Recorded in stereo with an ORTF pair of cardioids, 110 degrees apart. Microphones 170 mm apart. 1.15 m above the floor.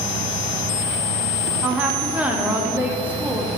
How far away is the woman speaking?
About 1.7 m.